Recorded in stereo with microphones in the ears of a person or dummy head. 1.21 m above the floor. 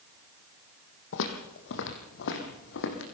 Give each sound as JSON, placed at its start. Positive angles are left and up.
{"t": 1.1, "sound": "footsteps", "side_deg": 65, "distance_m": 3.0}